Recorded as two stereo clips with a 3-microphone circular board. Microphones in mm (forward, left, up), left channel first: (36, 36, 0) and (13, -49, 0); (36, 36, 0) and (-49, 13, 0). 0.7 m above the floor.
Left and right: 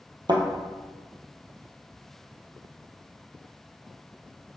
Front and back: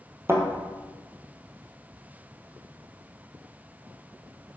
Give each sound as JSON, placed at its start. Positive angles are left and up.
{"t": 0.3, "sound": "a thud", "azimuth_deg": -110, "distance_m": 1.5}